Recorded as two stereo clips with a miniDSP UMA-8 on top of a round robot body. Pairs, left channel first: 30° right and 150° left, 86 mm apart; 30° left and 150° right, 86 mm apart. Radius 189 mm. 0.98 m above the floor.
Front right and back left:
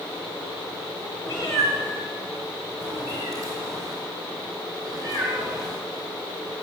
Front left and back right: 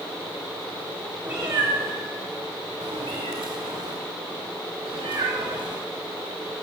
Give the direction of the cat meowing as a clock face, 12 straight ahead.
3 o'clock.